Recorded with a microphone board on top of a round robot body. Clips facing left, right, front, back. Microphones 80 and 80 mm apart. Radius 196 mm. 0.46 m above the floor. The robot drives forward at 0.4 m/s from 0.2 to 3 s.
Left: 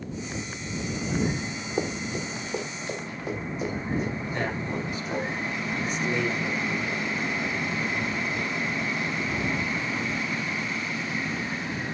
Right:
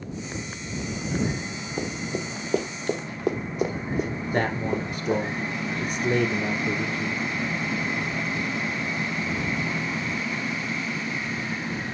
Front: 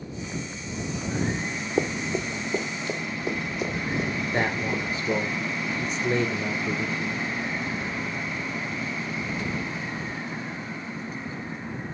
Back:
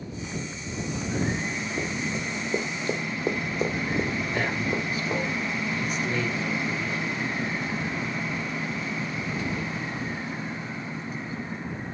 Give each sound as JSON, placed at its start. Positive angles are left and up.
{"t": 1.8, "sound": "running footsteps", "azimuth_deg": 10, "distance_m": 0.7}
{"t": 4.3, "sound": "a man speaking", "azimuth_deg": -55, "distance_m": 1.9}